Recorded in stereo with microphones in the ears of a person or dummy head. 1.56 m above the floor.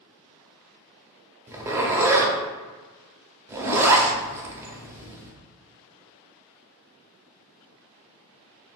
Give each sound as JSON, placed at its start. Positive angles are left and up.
{"t": 1.5, "sound": "a zipper", "side_deg": -10, "distance_m": 0.6}